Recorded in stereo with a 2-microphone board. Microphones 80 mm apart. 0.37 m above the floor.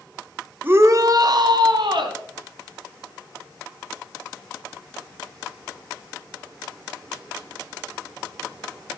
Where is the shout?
25° right (ahead or behind), 0.9 m; by 2.2 s 65° right (ahead or behind), 3 m.